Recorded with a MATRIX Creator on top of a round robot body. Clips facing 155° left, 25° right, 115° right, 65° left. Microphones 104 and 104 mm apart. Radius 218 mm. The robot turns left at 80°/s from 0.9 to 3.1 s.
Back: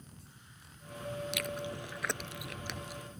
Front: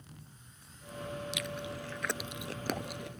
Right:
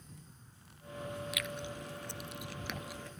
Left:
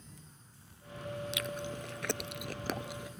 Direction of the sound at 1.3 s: 130° left.